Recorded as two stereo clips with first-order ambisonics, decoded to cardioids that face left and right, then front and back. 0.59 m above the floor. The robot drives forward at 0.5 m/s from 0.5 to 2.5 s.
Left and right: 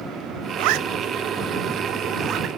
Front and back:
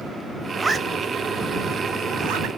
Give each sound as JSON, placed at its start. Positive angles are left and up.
{"t": 0.6, "sound": "a zipper", "azimuth_deg": -100, "distance_m": 0.7}